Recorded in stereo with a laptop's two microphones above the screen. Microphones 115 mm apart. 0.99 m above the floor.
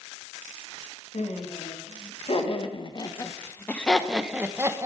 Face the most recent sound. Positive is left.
turn(degrees=-25)  # may be behind; listen again after turning